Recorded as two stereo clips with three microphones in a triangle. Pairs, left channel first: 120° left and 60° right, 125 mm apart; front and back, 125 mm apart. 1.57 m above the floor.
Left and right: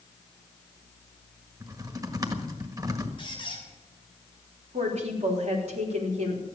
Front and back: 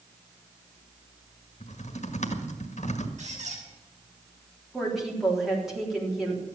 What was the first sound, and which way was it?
Typing on a keyboard, straight ahead.